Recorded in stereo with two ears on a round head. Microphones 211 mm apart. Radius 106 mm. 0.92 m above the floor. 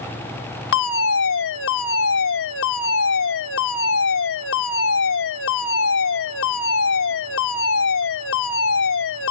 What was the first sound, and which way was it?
A fire alarm, 60° left (ahead or behind).